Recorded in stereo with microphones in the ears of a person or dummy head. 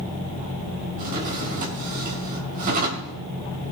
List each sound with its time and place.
1.0 s a drawer: 50° right (ahead or behind), 3.5 m